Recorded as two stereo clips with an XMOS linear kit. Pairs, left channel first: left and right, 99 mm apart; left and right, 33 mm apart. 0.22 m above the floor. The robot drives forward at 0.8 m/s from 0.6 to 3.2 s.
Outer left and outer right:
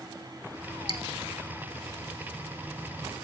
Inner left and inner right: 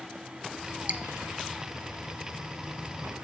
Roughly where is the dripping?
Right.